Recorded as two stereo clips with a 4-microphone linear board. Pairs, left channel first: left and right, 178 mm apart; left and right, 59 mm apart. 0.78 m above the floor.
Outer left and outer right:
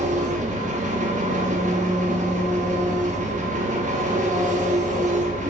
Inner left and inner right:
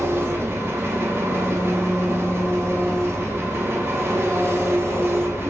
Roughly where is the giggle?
No giggle in this recording.